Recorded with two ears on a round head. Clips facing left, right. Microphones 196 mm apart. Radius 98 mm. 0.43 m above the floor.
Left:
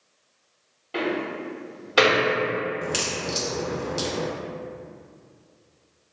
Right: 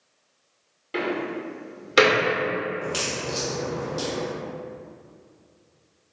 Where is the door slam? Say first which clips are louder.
Even; 25° right (ahead or behind), 0.7 m.